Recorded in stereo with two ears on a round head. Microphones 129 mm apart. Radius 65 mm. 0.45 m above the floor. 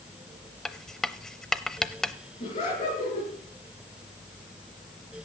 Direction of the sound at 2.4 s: 45° left (ahead or behind).